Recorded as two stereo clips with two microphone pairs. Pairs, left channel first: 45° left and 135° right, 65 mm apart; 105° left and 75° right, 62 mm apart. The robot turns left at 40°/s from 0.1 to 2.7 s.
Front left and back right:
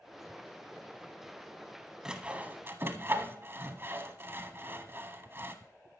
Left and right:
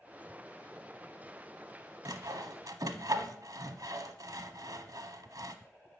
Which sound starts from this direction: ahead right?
Sawing, at 2.0 s.